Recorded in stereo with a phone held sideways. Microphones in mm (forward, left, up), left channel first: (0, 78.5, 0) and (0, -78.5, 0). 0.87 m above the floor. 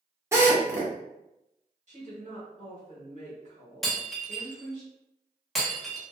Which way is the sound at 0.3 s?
15° right (ahead or behind).